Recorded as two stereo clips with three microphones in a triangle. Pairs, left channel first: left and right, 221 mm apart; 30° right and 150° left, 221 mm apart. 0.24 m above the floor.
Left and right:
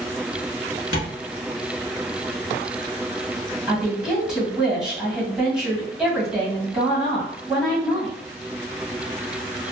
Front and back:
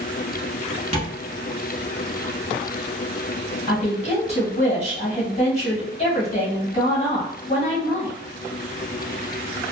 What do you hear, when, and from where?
0.9 s tapping: 100° left, 1.0 m
3.7 s a woman speaking: 5° right, 1.8 m